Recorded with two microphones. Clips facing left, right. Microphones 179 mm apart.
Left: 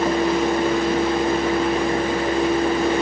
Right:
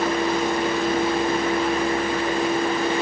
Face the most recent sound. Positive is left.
No sound to turn to.